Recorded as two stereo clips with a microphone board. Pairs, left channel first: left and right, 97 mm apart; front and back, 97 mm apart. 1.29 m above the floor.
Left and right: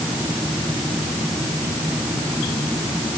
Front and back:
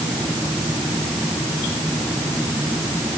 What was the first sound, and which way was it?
Only background noise.